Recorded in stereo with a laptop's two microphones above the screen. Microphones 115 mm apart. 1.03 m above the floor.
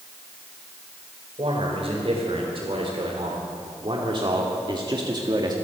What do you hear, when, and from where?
1.4 s a man speaking: 55° right (ahead or behind), 4.5 m; by 5.5 s 40° right (ahead or behind), 2 m